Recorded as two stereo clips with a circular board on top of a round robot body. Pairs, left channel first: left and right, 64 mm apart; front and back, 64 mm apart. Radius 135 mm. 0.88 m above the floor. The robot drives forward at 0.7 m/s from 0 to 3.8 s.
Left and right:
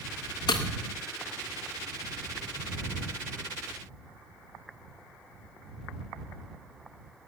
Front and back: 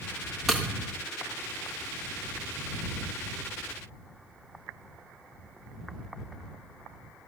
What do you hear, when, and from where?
0.5 s breaking glass: 95° left, 1.0 m; by 0.7 s 105° left, 1.0 m